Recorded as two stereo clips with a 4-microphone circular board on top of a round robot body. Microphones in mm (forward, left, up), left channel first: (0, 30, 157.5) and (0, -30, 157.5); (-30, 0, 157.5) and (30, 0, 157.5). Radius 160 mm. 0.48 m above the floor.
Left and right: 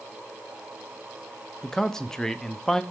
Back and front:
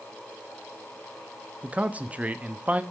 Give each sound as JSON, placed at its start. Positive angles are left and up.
{"t": 1.6, "sound": "a man speaking", "azimuth_deg": 20, "distance_m": 0.7}